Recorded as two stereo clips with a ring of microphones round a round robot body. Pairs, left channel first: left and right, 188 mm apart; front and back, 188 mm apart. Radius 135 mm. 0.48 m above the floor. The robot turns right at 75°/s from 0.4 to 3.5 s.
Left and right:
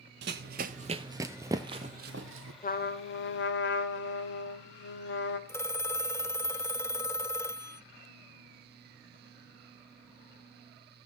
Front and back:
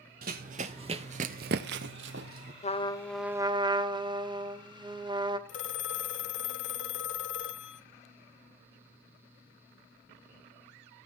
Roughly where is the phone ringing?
Ahead.